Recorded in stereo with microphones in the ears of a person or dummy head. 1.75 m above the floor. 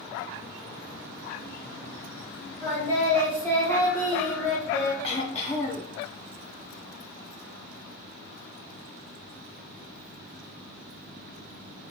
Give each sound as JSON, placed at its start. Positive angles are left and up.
{"t": 2.6, "sound": "singing", "side_deg": 15, "distance_m": 1.0}
{"t": 5.0, "sound": "throat clearing", "side_deg": 40, "distance_m": 1.0}